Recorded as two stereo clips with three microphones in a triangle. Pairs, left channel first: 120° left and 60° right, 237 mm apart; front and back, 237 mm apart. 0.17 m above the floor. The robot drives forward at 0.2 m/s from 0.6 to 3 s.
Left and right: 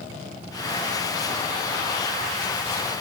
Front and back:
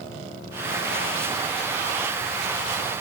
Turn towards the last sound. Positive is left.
No sound to turn to.